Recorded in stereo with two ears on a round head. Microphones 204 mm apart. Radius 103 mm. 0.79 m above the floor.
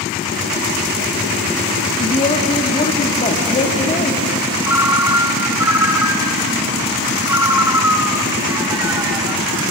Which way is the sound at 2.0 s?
30° left (ahead or behind).